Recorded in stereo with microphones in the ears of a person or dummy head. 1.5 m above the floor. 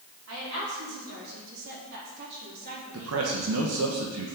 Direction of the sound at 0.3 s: 85° right.